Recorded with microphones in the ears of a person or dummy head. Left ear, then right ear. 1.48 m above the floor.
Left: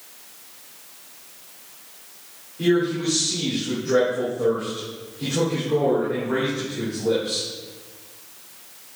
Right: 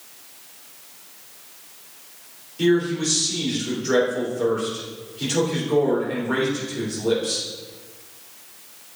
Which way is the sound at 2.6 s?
85° right.